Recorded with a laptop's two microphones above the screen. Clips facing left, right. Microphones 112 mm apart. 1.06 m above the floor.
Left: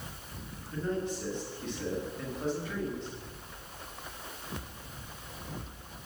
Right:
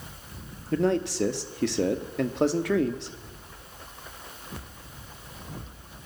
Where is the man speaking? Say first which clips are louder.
Right 9 dB; 80° right, 1.7 m.